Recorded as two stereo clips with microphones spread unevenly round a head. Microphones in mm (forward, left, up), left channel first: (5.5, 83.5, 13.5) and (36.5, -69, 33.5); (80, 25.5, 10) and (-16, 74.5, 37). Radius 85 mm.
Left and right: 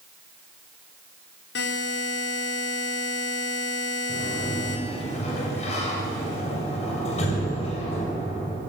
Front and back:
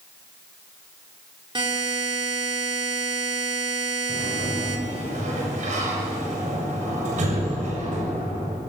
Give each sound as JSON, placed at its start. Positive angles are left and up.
{"t": 1.6, "sound": "a buzzer", "azimuth_deg": 105, "distance_m": 5.0}
{"t": 4.1, "sound": "a sliding door", "azimuth_deg": 155, "distance_m": 7.0}